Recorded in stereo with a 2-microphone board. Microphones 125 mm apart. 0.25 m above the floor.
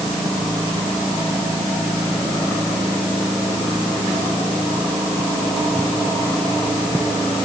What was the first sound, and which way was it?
Only background noise.